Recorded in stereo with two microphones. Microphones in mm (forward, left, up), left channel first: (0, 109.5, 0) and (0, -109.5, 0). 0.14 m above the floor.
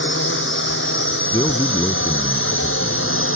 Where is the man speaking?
20° left (ahead or behind).